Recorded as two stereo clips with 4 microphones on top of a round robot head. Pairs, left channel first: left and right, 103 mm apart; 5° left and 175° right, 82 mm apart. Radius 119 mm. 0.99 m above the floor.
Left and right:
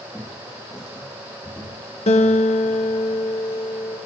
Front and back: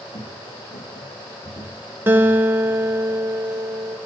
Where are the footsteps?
5° left, 4 m; by 3.1 s 25° left, 6.5 m.